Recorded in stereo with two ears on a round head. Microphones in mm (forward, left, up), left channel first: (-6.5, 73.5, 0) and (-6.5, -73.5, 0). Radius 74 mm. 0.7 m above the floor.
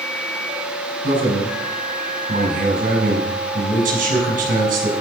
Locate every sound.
1.0 s a man speaking: 50° right (ahead or behind), 5.5 m